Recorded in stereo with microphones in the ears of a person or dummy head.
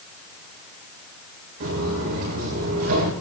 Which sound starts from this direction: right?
Footsteps, at 1.6 s.